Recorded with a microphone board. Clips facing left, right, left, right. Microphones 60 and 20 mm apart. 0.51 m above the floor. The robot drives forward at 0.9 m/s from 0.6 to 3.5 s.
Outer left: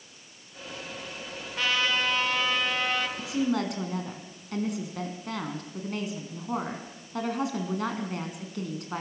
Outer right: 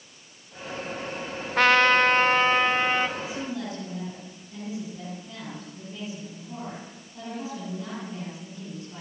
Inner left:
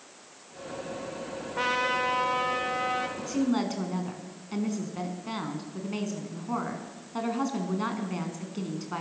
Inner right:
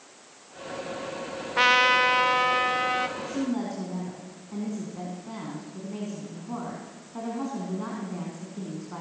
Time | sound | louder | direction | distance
1.6 | a trumpet | outer right 9 dB, inner right 8 dB | 65° right (ahead or behind) | 0.9 m
3.2 | a woman speaking | outer left 5 dB, inner left 2 dB | 80° left | 4.5 m